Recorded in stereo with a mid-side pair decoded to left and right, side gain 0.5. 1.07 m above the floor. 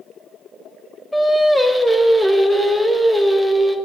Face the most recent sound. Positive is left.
turn(degrees=10)